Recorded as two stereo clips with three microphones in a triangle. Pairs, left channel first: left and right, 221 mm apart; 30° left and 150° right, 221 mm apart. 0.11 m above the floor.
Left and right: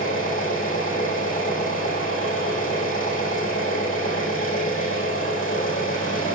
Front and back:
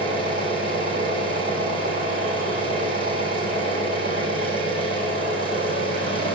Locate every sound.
0.0 s an engine running: 95° left, 4.5 m